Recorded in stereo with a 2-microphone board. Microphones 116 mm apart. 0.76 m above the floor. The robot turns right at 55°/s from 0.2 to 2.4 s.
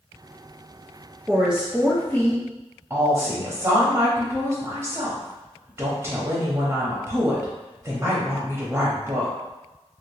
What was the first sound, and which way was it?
A woman speaking, 25° right.